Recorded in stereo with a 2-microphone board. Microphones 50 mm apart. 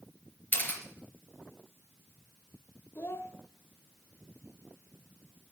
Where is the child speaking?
50° left (ahead or behind), 0.7 m.